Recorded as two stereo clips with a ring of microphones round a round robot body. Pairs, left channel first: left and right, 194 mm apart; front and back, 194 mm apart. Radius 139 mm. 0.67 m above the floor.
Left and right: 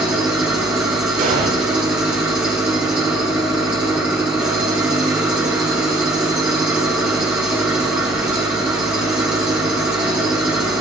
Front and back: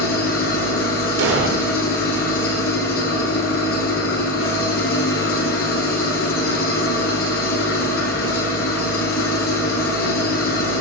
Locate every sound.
0.0 s an engine running: 5° right, 8.5 m
1.2 s an explosion: 150° right, 2 m